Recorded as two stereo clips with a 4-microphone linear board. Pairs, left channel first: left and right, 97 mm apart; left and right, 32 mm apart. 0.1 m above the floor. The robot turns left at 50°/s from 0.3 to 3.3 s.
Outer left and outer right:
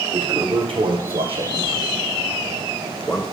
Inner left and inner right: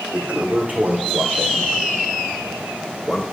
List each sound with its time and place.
0.1 s a toilet flushing: 45° right (ahead or behind), 2.5 m; by 3.2 s 10° left (ahead or behind), 2.5 m